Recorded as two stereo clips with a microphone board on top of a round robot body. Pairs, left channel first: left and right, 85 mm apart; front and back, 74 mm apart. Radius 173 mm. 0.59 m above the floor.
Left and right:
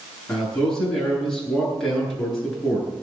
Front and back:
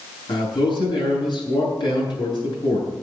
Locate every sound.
0.3 s a man speaking: 5° left, 9 m